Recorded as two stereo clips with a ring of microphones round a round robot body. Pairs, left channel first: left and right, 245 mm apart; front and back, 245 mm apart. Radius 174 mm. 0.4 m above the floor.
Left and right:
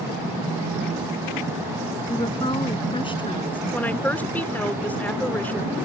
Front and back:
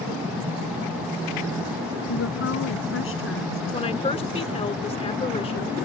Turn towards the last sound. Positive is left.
turn(degrees=15)